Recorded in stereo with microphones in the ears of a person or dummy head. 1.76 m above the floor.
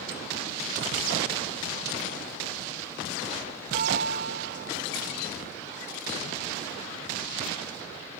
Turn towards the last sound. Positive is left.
turn(degrees=-45)  # may be behind; listen again after turning